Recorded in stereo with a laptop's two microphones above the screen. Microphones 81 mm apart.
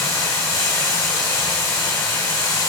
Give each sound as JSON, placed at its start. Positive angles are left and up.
{"t": 0.0, "sound": "running water", "side_deg": 75, "distance_m": 2.5}